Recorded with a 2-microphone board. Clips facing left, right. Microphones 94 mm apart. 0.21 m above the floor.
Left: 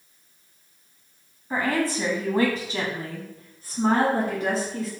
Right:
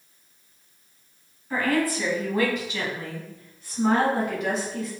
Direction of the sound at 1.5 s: 25° left (ahead or behind).